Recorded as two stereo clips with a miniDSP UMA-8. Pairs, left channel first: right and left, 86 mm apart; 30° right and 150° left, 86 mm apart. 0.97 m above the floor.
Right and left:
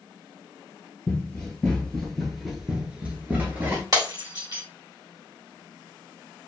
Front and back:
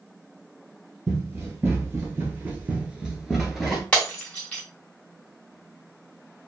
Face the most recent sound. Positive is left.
turn(degrees=45)